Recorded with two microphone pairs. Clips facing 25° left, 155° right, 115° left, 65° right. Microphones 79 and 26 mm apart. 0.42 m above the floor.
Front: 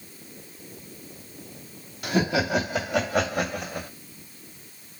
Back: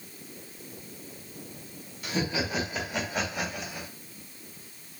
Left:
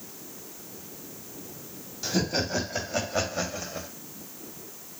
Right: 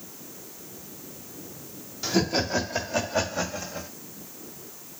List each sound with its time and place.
2.0 s laughter: 20° left, 3 m; by 3.9 s 45° left, 2 m